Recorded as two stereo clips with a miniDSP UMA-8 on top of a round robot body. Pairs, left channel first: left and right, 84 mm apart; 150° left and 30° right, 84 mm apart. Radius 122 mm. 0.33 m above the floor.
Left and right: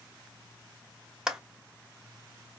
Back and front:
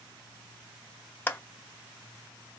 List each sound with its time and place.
1.3 s a clap: 165° right, 1.2 m